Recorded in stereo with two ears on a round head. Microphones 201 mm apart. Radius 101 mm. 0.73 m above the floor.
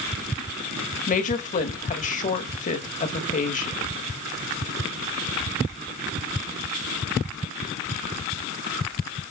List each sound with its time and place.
1.1 s a woman speaking: 35° left (ahead or behind), 1.4 m